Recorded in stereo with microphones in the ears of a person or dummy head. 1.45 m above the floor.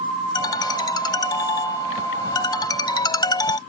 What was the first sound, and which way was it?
A ringtone, 20° left (ahead or behind).